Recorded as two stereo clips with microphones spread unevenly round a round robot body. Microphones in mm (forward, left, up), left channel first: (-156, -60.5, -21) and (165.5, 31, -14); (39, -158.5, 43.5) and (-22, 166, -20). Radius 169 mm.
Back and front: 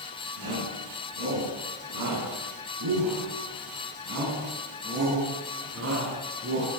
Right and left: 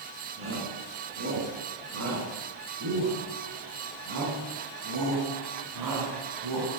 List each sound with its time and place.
0.4 s a shout: 45° left, 10 m; by 6.7 s 75° left, 8 m